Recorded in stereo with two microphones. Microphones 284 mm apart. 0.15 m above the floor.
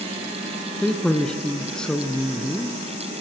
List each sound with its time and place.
0.8 s a man speaking: 5° left (ahead or behind), 1.4 m